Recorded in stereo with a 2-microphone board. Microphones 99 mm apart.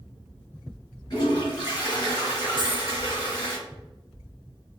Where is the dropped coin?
50° left (ahead or behind), 0.7 m.